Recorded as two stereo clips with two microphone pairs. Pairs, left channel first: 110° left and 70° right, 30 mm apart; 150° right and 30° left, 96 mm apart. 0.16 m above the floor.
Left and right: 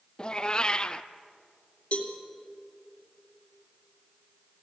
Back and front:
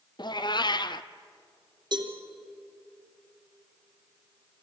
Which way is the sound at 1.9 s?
65° left.